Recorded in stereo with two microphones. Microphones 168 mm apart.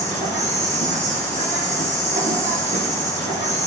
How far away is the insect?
About 4.5 m.